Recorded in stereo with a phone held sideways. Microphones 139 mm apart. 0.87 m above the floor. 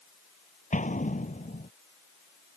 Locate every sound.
0.7 s an explosion: 65° left (ahead or behind)